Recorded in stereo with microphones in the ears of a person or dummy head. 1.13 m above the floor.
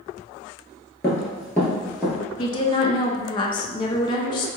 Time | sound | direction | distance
1.0 | running footsteps | 15° left (ahead or behind) | 1.3 m
2.4 | a woman speaking | 25° left (ahead or behind) | 0.5 m